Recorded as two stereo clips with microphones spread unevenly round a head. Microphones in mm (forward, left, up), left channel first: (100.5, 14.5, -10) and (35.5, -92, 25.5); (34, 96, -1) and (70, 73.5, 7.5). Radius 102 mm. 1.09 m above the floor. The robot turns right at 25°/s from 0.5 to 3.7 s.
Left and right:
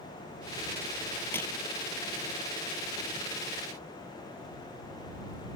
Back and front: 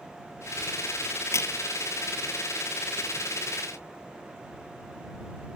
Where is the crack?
140° left; by 1.5 s 145° left.